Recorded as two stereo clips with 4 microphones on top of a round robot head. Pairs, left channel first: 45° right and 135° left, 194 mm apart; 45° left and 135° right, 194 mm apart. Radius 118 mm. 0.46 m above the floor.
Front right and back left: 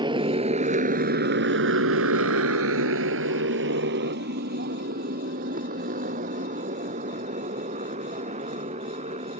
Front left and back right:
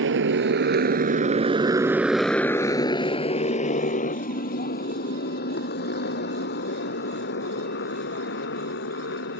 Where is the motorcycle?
160° right; by 9.4 s 75° left.